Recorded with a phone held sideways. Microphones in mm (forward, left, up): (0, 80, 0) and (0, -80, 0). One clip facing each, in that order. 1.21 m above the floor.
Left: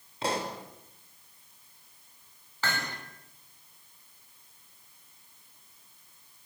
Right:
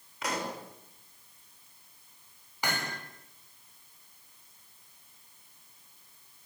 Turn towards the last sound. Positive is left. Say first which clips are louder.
# even
turn(degrees=-15)  # may be behind; listen again after turning